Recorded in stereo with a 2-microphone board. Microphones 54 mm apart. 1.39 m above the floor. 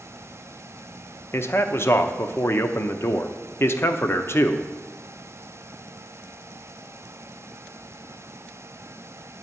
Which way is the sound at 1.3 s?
50° left (ahead or behind).